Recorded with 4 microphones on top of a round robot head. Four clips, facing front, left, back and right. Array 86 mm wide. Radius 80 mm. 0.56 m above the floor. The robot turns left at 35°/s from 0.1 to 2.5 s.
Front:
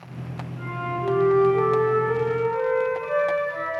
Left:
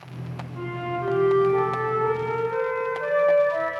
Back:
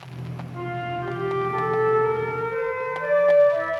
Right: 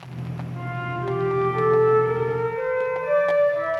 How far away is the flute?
About 1.9 m.